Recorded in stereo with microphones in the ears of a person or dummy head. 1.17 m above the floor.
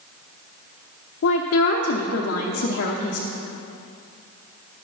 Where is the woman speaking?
60° left (ahead or behind), 0.8 m.